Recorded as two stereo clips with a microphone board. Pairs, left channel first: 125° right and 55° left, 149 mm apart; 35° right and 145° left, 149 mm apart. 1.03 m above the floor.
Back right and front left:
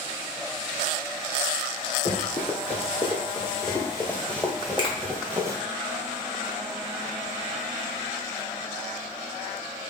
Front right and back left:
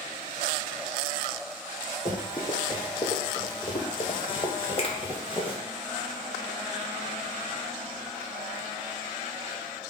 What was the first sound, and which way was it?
Running footsteps, 95° right.